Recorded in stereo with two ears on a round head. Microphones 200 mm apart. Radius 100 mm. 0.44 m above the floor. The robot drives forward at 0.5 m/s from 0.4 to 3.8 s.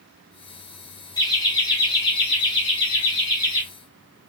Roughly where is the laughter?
Centre.